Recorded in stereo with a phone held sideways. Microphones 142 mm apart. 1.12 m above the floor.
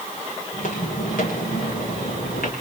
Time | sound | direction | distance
0.5 | footsteps | 70° left (ahead or behind) | 6.5 m